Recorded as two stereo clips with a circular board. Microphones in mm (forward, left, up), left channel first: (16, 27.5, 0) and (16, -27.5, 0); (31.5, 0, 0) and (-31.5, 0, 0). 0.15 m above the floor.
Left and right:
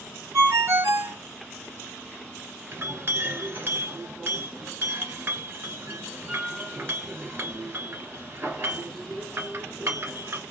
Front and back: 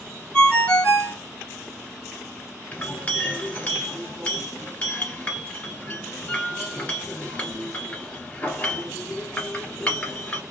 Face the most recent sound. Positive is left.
turn(degrees=-60)